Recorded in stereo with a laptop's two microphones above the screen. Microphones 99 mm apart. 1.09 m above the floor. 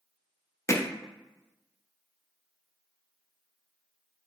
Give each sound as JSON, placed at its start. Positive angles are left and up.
{"t": 0.7, "sound": "hammering", "side_deg": 30, "distance_m": 0.8}